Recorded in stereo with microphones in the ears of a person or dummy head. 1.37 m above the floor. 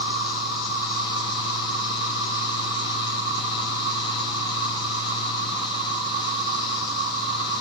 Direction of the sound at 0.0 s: 25° left (ahead or behind).